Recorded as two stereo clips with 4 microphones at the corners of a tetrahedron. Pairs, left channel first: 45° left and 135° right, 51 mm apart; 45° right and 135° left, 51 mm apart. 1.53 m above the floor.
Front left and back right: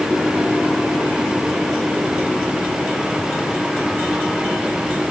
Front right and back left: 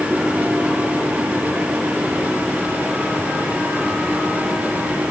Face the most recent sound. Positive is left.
No sound to turn to.